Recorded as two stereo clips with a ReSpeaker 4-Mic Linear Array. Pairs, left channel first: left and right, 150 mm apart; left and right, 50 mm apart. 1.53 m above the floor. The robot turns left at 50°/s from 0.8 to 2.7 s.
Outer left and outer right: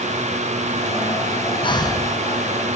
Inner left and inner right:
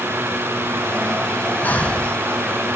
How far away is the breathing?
About 1.3 m.